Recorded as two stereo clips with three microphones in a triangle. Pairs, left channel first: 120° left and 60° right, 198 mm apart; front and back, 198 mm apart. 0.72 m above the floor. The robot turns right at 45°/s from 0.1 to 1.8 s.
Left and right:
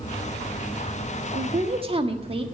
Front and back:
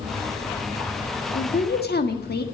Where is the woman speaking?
25° right, 1.5 m; by 2.5 s 5° right, 1.5 m.